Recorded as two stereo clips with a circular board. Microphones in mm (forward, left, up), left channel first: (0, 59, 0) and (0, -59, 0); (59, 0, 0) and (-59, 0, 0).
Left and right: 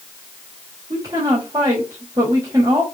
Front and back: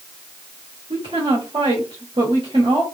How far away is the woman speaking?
About 1.4 m.